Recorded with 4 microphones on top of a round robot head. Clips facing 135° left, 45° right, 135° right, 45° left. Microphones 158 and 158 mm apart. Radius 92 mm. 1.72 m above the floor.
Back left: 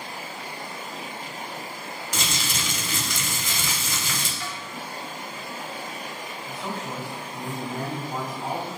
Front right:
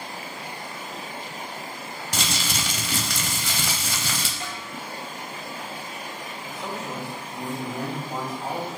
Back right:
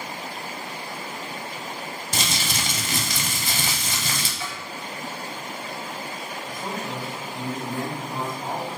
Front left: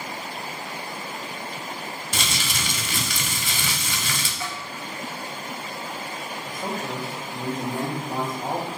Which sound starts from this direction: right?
Crumpling, at 2.1 s.